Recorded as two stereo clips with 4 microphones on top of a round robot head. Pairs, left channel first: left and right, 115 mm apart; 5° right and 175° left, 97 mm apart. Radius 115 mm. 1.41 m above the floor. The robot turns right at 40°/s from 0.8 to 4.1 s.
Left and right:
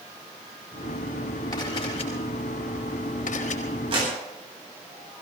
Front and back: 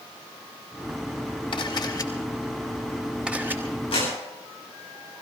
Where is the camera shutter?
25° left, 4.5 m; by 3.6 s 110° left, 4.5 m.